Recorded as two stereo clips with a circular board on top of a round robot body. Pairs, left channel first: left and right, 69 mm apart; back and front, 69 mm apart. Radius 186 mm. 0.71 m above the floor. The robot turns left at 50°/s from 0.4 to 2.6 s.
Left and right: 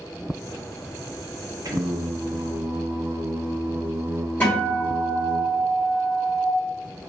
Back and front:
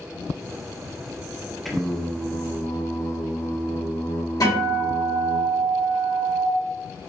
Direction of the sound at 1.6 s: 90° right.